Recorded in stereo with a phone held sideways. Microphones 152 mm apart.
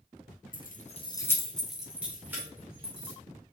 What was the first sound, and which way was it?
Keys jangling, 65° left (ahead or behind).